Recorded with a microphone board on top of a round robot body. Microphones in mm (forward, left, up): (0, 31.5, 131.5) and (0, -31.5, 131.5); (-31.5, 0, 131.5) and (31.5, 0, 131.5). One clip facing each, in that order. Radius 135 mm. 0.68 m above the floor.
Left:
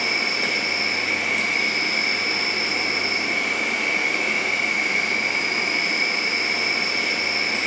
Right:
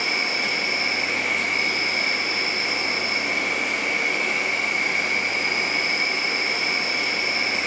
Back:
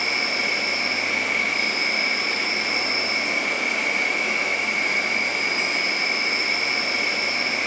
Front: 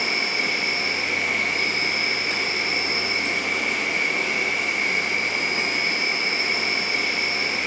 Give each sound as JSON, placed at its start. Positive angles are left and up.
{"t": 0.0, "sound": "an insect", "azimuth_deg": -135, "distance_m": 0.7}